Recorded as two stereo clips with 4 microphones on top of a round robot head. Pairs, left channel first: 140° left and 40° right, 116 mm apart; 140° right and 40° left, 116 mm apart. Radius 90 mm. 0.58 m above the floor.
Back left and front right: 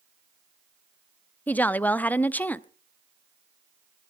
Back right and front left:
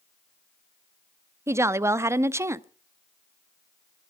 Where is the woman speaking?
80° left, 0.7 m.